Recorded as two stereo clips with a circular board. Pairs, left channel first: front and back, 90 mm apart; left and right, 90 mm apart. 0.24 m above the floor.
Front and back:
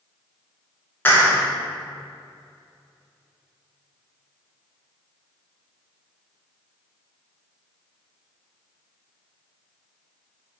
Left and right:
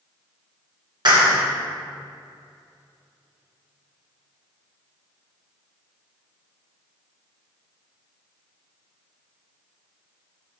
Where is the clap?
65° right, 2.5 m.